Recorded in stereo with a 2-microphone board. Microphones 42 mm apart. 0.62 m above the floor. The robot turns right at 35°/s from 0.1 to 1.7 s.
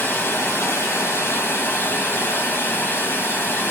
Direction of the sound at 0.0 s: 65° left.